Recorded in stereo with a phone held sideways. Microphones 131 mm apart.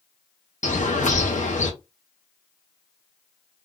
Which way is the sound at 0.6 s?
70° left (ahead or behind).